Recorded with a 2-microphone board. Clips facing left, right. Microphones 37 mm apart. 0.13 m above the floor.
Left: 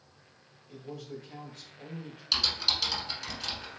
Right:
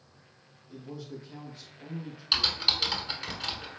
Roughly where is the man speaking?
Left.